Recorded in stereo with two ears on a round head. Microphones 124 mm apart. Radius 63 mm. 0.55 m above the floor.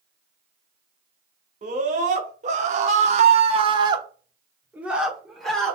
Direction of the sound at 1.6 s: 50° right (ahead or behind).